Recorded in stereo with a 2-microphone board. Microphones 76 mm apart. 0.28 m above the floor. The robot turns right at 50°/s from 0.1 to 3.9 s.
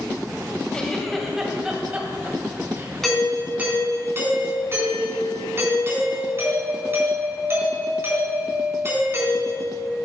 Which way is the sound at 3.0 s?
175° left.